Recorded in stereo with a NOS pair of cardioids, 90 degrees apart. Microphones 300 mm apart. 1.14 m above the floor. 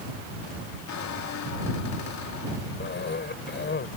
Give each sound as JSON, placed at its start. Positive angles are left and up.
{"t": 0.9, "sound": "a squeak", "azimuth_deg": 65}
{"t": 2.8, "sound": "a cough", "azimuth_deg": 35}